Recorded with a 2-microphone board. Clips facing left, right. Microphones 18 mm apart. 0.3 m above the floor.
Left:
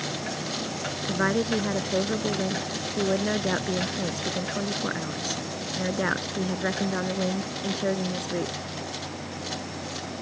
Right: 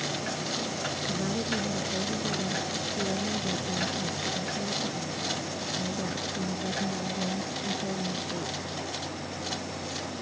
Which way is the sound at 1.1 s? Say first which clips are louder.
Left 9 dB; 60° left (ahead or behind).